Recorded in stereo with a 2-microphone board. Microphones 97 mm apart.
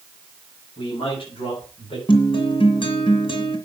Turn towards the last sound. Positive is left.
turn(degrees=65)  # may be behind; listen again after turning